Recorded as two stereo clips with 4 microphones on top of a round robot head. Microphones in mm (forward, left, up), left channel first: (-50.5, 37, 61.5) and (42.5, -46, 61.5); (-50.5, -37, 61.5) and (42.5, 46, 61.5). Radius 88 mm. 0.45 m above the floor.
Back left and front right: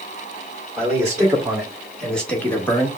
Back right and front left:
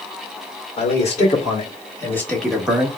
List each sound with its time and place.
0.8 s a man speaking: 120° right, 2 m; by 2.9 s 95° left, 1.3 m